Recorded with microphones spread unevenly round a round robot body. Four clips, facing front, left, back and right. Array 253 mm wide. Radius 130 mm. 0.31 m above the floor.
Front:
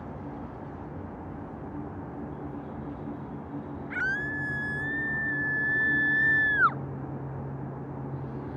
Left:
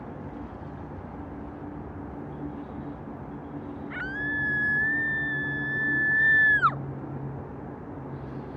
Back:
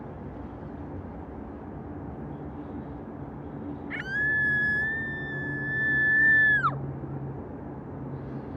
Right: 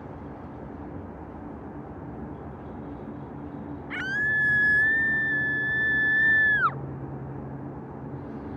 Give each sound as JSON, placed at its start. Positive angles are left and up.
{"t": 3.9, "sound": "a scream", "azimuth_deg": -130}